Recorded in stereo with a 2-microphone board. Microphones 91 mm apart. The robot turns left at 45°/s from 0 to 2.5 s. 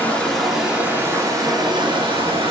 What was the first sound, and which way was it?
Running water, 20° left.